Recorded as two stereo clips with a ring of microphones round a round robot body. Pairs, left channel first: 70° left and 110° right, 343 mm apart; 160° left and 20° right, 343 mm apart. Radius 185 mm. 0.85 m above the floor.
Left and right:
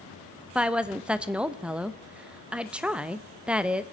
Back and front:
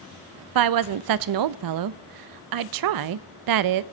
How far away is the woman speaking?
About 0.5 m.